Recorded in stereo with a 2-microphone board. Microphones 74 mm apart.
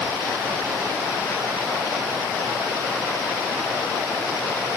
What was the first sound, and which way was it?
Only background noise.